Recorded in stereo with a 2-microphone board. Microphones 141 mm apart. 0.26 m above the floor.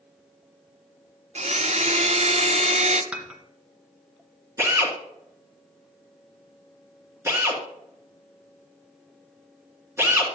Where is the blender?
50° right (ahead or behind), 0.7 m.